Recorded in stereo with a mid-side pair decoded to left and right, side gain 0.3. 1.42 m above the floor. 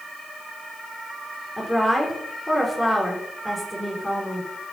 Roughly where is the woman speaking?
Ahead.